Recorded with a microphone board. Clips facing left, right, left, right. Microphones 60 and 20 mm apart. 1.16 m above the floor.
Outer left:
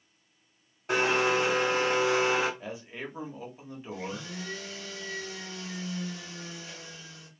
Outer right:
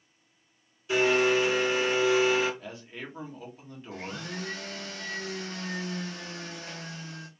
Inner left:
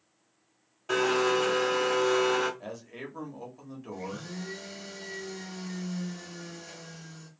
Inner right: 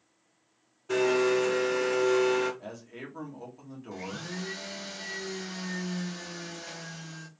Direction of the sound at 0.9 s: 55° left (ahead or behind).